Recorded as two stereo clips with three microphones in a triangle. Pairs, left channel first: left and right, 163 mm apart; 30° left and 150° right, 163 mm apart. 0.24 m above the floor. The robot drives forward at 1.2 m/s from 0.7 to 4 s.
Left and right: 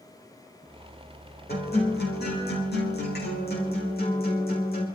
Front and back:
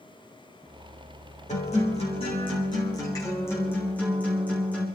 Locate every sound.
1.5 s a guitar: 75° left, 5 m; by 4.9 s 110° left, 5 m